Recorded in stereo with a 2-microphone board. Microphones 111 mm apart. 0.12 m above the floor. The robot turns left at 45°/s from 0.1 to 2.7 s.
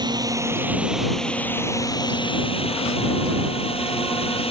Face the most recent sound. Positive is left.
turn(degrees=105)